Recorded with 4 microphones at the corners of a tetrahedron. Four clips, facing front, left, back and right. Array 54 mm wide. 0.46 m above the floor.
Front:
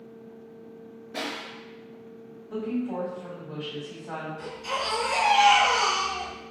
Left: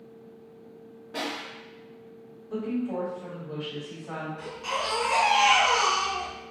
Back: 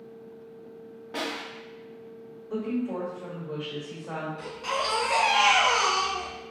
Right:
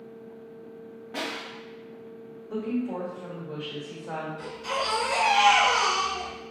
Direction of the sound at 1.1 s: 160° right.